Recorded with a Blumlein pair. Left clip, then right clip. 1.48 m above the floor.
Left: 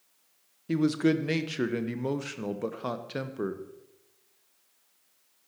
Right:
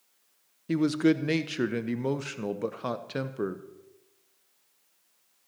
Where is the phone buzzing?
I don't hear a phone buzzing.